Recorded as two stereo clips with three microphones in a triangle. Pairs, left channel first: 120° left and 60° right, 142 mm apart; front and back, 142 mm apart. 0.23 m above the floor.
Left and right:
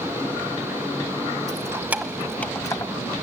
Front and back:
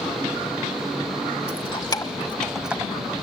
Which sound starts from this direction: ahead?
Keys jangling, at 1.5 s.